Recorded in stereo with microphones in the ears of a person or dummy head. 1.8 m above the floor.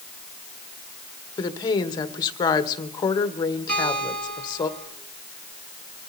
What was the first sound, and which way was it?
A woman speaking, 20° left (ahead or behind).